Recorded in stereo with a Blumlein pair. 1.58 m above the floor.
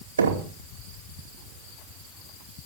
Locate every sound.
0.2 s knocking: 70° right, 2 m